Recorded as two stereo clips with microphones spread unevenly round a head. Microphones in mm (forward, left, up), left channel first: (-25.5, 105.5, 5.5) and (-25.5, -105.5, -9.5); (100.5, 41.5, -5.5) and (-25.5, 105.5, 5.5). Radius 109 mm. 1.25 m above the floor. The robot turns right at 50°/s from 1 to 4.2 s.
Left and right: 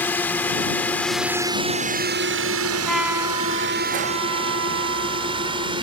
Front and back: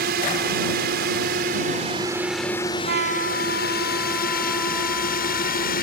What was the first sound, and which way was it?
A drone, 170° left.